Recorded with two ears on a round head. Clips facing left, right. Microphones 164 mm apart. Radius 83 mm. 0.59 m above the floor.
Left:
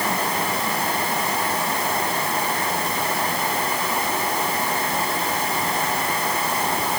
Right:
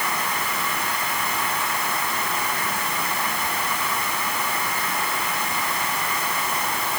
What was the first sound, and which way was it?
Only background noise.